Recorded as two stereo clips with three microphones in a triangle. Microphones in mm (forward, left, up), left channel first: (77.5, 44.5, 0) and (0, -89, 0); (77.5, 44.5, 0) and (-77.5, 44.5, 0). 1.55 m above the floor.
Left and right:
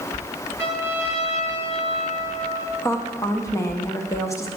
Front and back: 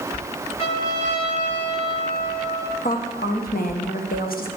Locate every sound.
0.6 s a trumpet: 40° right, 4 m
2.8 s a woman speaking: 10° right, 1.0 m